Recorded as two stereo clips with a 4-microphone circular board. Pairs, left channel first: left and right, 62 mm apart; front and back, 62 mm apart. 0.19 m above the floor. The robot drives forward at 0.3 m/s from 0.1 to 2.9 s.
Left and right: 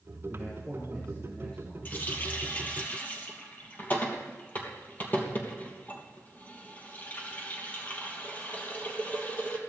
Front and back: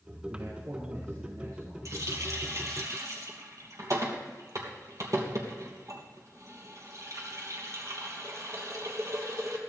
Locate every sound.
0.3 s a man speaking: 160° left, 5 m
1.9 s a running tap: 145° left, 3 m; by 9.6 s 150° left, 3 m